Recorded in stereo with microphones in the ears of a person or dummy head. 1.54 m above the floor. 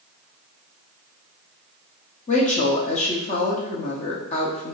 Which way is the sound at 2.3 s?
30° left (ahead or behind).